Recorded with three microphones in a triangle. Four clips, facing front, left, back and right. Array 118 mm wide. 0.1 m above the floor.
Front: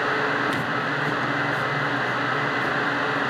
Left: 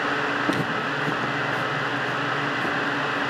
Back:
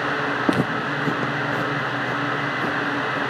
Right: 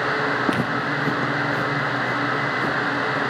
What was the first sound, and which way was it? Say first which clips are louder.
Footsteps: right 2 dB, back 3 dB; 165° right.